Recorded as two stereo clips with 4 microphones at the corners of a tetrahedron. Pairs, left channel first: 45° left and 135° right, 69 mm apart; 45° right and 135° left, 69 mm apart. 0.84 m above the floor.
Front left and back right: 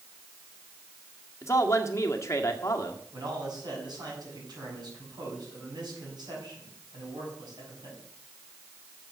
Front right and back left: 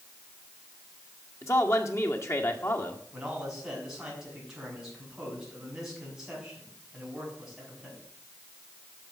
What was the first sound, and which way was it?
A man speaking, straight ahead.